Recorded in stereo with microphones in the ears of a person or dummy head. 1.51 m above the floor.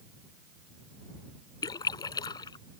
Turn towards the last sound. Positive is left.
turn(degrees=25)  # may be behind; listen again after turning